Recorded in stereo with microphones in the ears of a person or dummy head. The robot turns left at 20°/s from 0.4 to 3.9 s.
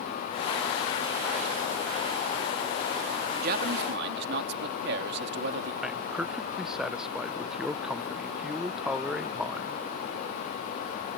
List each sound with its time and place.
3.4 s a man speaking: 55° right (ahead or behind); by 5.7 s 65° right (ahead or behind)
5.8 s a man speaking: 5° right (ahead or behind)